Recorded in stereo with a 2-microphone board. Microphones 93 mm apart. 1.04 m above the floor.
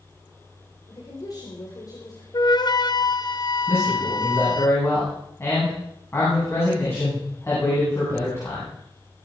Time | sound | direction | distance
0.9 | a woman speaking | 45° left (ahead or behind) | 4 m
2.3 | a flute | 50° left (ahead or behind) | 1.0 m
3.7 | a man speaking | 30° left (ahead or behind) | 9 m